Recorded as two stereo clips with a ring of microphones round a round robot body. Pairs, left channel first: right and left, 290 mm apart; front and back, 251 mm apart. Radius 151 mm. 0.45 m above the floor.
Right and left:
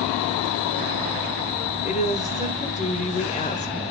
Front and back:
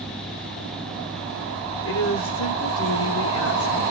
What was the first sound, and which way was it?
A woman speaking, 25° right.